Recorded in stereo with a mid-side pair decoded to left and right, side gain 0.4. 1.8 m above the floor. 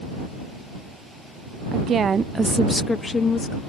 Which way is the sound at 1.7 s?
70° right.